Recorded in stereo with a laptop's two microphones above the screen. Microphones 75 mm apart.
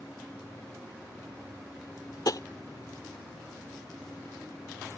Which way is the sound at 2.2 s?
60° left (ahead or behind).